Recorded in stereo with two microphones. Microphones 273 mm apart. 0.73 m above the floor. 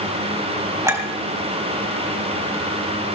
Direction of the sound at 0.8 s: 10° right (ahead or behind).